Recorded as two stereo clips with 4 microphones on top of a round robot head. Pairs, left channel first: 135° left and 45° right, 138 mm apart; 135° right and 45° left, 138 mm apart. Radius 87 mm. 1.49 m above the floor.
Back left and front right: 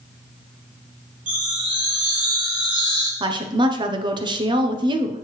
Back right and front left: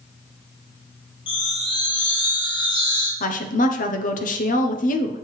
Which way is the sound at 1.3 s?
75° right.